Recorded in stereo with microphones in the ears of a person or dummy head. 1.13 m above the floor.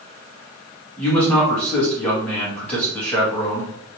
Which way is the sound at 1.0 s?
10° left (ahead or behind).